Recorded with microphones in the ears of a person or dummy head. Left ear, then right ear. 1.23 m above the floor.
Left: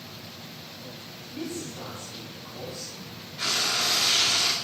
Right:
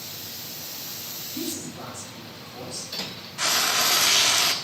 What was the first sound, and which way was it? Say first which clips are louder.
A man speaking: even; 65° right (ahead or behind).